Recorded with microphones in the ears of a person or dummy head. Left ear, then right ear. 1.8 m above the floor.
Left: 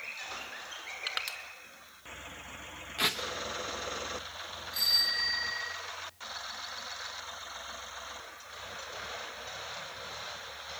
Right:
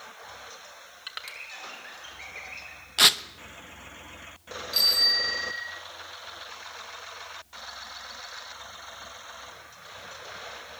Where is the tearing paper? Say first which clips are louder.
Right 11 dB; 40° right (ahead or behind), 0.9 m.